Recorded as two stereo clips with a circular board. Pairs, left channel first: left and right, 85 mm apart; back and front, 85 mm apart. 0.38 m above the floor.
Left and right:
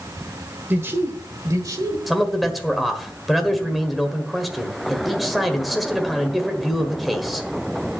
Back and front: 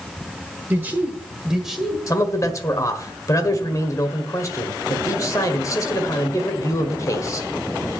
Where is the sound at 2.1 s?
175° right, 1.6 m.